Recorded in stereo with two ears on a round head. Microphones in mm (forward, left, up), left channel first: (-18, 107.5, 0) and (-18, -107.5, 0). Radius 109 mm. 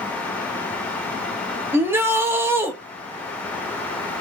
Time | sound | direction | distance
1.7 | a shout | 10° right (ahead or behind) | 0.9 m